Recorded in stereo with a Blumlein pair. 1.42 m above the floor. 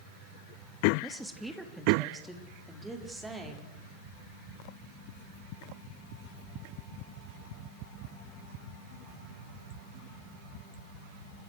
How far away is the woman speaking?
About 2.5 m.